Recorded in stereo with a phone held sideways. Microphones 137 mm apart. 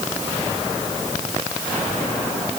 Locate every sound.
Only background noise.